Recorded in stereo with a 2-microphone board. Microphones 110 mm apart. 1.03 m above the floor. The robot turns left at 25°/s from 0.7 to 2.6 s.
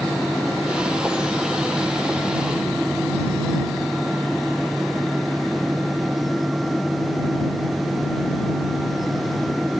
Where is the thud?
No thud in this recording.